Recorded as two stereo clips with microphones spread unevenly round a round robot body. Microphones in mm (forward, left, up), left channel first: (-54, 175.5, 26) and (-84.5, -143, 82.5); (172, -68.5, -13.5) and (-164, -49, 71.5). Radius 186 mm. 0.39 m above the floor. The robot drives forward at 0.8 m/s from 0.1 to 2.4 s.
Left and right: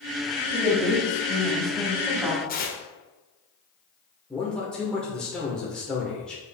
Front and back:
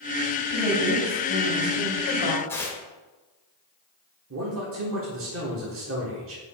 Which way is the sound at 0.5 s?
Straight ahead.